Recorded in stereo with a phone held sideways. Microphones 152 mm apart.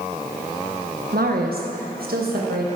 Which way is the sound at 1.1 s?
85° right.